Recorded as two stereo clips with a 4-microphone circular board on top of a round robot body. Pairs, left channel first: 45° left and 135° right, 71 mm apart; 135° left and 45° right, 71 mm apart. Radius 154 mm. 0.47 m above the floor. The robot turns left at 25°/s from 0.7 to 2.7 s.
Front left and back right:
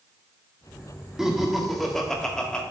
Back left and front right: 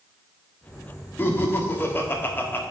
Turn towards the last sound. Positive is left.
turn(degrees=110)